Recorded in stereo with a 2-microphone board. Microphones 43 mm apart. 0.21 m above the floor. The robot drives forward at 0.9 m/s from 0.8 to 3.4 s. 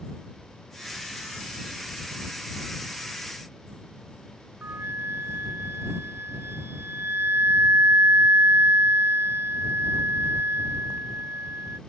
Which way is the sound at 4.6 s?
70° right (ahead or behind).